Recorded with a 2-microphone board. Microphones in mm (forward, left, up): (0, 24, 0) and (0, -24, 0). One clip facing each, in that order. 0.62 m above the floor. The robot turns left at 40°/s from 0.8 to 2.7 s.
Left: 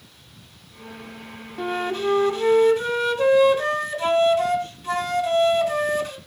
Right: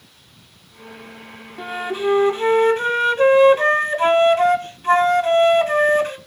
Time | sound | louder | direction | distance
1.6 | a flute | right 1 dB | straight ahead | 1.6 m